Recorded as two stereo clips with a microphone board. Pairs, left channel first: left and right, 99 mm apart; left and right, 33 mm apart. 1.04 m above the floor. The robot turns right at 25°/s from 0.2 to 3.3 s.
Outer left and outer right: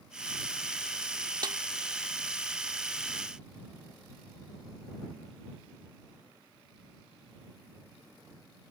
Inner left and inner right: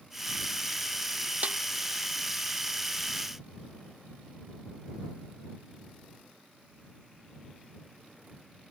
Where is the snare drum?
50° right (ahead or behind); by 1.6 s 45° right (ahead or behind).